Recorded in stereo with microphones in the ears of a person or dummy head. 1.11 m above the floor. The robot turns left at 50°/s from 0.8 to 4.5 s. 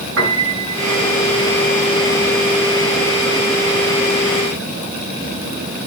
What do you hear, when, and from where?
0.2 s a piano: 65° right (ahead or behind), 8 m; by 1.1 s 85° right, 8 m